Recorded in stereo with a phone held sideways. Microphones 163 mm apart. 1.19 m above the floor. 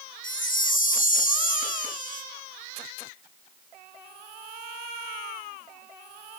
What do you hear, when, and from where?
0.2 s a chime: 55° left (ahead or behind), 2.0 m